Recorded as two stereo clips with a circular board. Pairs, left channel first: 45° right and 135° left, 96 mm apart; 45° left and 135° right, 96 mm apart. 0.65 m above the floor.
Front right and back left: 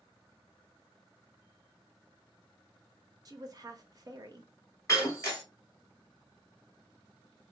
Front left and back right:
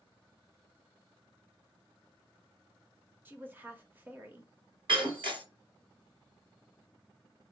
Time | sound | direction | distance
3.2 | a woman speaking | 160° left | 1.3 m
4.9 | breaking glass | 100° right | 3.5 m